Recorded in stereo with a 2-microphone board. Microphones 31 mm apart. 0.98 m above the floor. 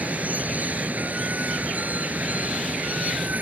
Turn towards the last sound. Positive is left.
turn(degrees=-60)  # may be behind; listen again after turning